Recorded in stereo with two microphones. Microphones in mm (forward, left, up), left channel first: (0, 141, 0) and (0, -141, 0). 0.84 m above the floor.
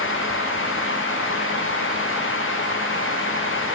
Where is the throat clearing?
No throat clearing in this recording.